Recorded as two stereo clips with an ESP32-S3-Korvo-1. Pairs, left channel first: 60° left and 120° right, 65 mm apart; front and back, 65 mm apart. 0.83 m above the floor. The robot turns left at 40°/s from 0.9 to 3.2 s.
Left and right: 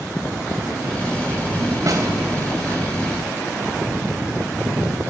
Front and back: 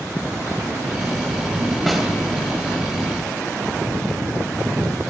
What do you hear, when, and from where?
1.9 s a snare drum: 90° right, 3.5 m; by 2.1 s 95° right, 3.5 m